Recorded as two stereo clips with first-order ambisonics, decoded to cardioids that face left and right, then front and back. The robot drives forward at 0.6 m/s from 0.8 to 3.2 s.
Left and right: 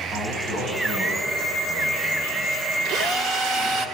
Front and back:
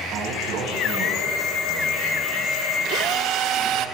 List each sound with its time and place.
0.1 s a man speaking: 145° right, 7 m; by 3.9 s 150° right, 8 m
2.9 s a drill: 140° right, 1.1 m; by 3.9 s 145° right, 1.2 m